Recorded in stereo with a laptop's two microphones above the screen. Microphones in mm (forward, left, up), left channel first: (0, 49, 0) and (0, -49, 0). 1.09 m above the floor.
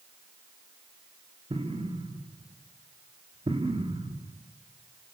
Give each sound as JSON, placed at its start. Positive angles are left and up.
{"t": 1.5, "sound": "an explosion", "side_deg": -80, "distance_m": 1.9}